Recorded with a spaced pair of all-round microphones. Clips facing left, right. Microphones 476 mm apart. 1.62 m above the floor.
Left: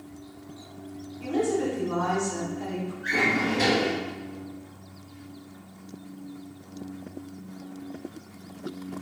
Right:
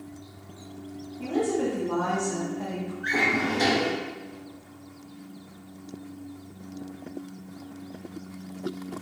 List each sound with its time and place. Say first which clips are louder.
1.2 s a woman speaking: even; 65° right (ahead or behind), 1.1 m
3.0 s a drawer: left 1 dB; 45° left (ahead or behind), 1.6 m